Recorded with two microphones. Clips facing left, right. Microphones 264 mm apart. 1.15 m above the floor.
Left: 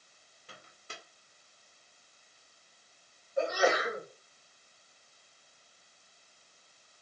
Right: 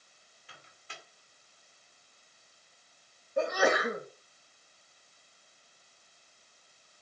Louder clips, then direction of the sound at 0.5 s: Left 3 dB; 45° left (ahead or behind).